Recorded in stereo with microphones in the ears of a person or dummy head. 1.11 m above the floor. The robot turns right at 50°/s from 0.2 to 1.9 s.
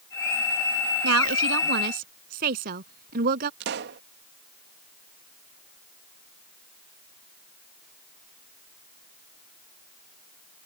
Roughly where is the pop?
Right.